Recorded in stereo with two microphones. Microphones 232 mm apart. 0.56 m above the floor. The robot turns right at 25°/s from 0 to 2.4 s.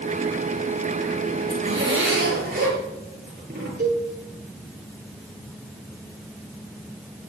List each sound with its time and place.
1.5 s a zipper: 65° right (ahead or behind), 8.5 m; by 3.7 s 45° right (ahead or behind), 8.5 m
3.8 s a cowbell: 45° right (ahead or behind), 7.5 m